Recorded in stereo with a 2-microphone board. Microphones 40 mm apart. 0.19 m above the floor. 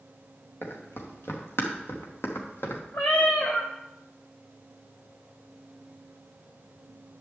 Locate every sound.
0.6 s running footsteps: 75° left (ahead or behind), 3.5 m; by 2.8 s 80° left, 3 m
2.9 s a cat meowing: 60° left (ahead or behind), 3 m